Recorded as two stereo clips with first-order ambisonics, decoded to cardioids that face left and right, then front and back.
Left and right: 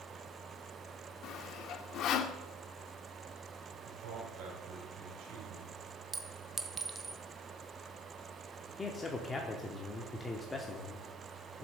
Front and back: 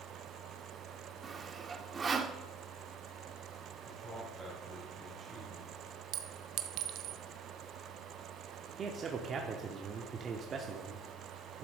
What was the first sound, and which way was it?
Sawing, 115° left.